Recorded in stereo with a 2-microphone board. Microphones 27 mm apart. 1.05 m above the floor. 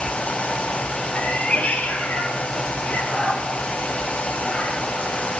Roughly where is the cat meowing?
Left.